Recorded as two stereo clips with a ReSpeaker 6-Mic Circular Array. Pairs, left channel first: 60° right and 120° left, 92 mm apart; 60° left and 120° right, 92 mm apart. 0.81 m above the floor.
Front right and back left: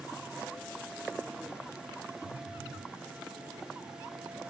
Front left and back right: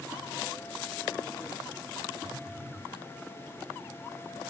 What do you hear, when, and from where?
2.2 s a phone buzzing: 145° left, 0.8 m